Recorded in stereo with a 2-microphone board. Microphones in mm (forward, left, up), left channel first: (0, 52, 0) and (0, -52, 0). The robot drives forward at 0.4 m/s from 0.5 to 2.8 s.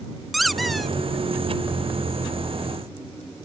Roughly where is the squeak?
Centre.